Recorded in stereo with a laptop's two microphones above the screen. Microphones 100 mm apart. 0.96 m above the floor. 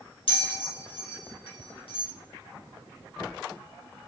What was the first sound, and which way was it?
A bell, 70° left (ahead or behind).